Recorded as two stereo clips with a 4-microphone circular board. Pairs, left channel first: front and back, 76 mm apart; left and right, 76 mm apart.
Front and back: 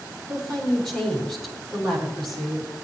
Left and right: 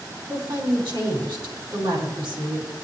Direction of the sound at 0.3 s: 85° right.